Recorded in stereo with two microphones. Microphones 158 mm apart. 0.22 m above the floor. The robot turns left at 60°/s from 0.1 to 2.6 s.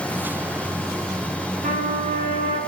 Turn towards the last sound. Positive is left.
turn(degrees=-120)